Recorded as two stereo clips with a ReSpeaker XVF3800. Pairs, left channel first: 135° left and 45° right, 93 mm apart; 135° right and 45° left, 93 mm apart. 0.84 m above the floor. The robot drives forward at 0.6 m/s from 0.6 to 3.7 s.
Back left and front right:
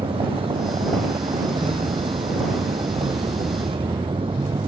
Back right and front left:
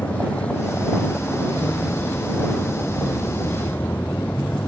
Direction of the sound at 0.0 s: 60° right.